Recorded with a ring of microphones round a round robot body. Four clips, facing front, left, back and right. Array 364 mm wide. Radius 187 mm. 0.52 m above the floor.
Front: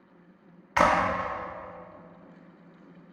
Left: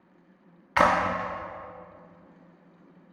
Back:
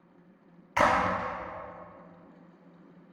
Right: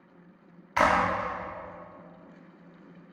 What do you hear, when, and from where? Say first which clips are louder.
0.8 s a clap: left 1 dB, front 2 dB; 60° left, 1.0 m